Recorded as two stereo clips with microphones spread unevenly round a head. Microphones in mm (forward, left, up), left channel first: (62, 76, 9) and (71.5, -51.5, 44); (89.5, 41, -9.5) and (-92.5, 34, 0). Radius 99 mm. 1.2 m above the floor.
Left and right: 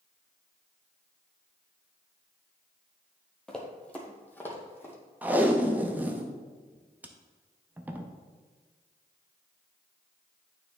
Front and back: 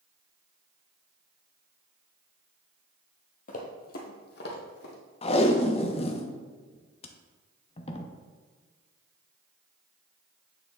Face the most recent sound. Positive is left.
turn(degrees=-40)